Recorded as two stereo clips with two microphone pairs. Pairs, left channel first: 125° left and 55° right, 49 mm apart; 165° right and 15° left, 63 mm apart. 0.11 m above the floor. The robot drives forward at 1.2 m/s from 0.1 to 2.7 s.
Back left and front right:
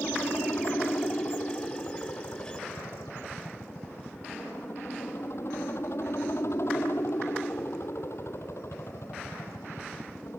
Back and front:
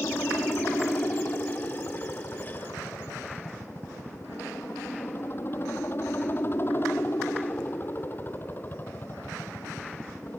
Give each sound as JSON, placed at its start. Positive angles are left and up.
{"t": 0.0, "sound": "a helicopter", "azimuth_deg": 150}